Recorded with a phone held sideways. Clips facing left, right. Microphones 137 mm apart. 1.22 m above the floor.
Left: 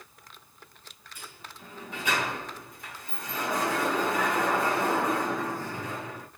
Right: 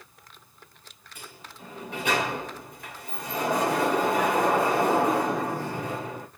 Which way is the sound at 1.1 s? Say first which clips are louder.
Right 2 dB; 60° right (ahead or behind).